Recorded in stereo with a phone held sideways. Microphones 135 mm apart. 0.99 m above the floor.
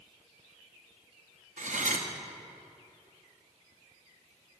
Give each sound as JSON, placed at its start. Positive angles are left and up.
{"t": 1.6, "sound": "cutlery clinking", "side_deg": -70, "distance_m": 0.8}